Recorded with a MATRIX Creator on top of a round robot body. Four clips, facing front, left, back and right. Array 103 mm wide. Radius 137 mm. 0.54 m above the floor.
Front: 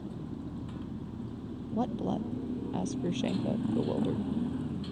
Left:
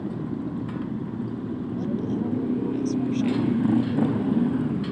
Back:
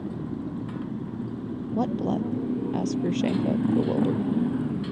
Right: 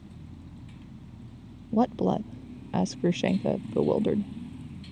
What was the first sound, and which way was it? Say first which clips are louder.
A motorcycle: left 18 dB, back 8 dB; 115° left.